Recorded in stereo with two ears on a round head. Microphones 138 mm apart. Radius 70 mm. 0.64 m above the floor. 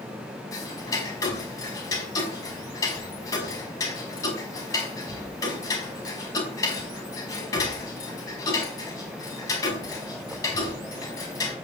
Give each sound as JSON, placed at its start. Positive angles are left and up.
{"t": 0.5, "sound": "ticking", "side_deg": 20, "distance_m": 5.5}